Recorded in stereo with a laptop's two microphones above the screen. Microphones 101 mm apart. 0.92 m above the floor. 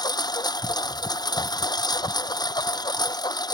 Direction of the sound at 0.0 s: 45° left (ahead or behind).